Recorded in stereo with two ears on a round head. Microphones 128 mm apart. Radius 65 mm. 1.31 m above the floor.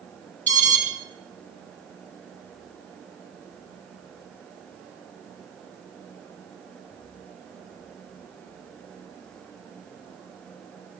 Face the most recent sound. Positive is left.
turn(degrees=15)  # may be behind; listen again after turning